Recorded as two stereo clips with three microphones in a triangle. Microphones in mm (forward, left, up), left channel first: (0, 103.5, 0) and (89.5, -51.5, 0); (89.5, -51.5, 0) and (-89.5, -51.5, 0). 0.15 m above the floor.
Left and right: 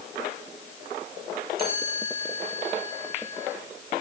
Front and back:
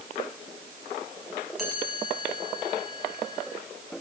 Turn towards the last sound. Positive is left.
turn(degrees=-90)